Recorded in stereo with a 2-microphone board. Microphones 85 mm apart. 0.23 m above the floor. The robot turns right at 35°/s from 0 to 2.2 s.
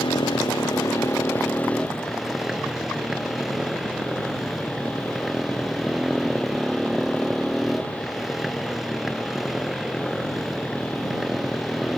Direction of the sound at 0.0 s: 105° left.